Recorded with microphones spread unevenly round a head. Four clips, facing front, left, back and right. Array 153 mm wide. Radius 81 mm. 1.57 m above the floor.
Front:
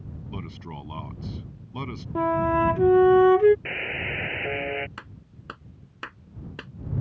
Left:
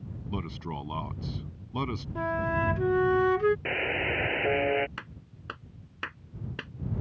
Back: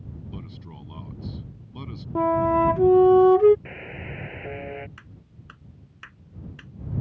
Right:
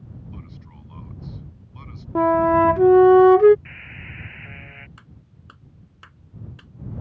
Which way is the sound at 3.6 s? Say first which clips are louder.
Left 13 dB, front 5 dB; 85° left.